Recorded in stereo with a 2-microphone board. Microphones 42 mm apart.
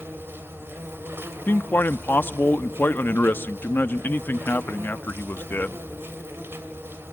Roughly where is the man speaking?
Left.